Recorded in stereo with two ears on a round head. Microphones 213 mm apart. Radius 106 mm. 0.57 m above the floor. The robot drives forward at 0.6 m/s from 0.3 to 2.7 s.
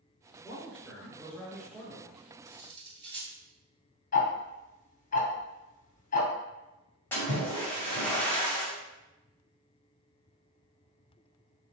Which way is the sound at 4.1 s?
35° left (ahead or behind).